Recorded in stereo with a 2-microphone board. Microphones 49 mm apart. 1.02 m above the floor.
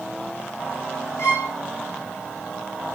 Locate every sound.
1.2 s a violin: 65° left (ahead or behind), 1.8 m